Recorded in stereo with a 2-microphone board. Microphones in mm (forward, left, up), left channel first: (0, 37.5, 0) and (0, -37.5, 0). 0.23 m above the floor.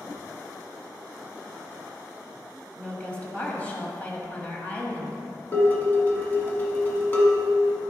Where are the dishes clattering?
30° left (ahead or behind), 1.4 m.